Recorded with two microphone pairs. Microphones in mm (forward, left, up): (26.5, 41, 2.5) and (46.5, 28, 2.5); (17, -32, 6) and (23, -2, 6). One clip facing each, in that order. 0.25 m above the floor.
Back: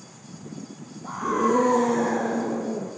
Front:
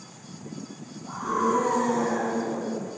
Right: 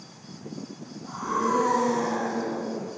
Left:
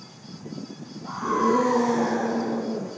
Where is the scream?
150° left, 4.5 m.